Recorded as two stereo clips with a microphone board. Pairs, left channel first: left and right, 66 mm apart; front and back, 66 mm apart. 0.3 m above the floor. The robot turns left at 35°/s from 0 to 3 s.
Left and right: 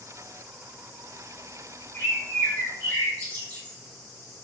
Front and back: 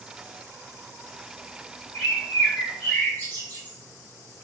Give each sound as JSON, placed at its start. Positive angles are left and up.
{"t": 1.9, "sound": "a bird", "azimuth_deg": 80, "distance_m": 1.4}